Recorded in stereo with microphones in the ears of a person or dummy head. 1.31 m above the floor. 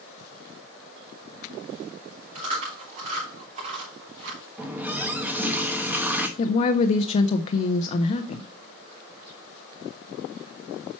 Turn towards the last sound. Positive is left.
turn(degrees=35)  # may be behind; listen again after turning